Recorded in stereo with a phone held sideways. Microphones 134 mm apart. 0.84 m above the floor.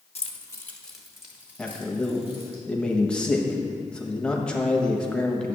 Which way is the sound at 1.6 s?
5° left (ahead or behind).